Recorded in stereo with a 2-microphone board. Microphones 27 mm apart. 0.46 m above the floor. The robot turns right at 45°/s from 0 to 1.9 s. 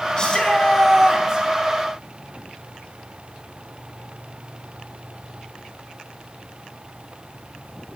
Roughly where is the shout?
Behind left.